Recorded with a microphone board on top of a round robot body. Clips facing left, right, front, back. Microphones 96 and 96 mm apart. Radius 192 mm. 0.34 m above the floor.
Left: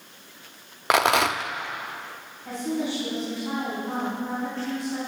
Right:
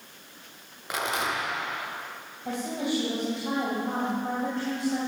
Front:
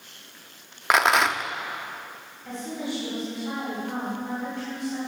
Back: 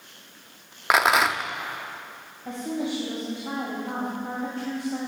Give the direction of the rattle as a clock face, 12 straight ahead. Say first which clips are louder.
Left 9 dB, even; 9 o'clock.